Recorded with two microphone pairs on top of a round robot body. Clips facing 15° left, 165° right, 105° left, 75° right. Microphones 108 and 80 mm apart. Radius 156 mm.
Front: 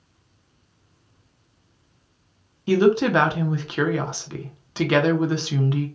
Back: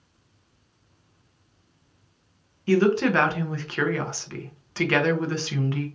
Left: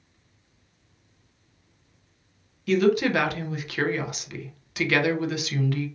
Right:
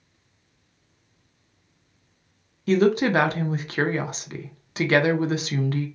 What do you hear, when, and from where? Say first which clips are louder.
2.7 s a woman speaking: front 2 dB, right 1 dB; 60° right, 0.8 m